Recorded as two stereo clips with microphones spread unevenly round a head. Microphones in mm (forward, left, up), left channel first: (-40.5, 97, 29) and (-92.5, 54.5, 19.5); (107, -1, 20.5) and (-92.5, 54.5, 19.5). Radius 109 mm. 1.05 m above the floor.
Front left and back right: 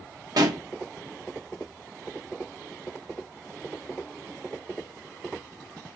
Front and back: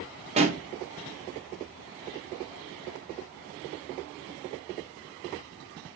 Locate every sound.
0.4 s a pop: 135° right, 0.9 m